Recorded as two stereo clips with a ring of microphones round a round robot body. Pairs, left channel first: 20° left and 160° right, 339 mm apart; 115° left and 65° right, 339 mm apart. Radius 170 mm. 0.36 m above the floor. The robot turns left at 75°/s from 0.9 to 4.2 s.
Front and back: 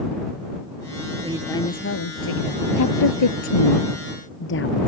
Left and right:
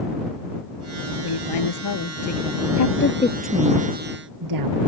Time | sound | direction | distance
1.2 | a woman speaking | 130° left | ?
2.8 | a woman speaking | 75° left | ?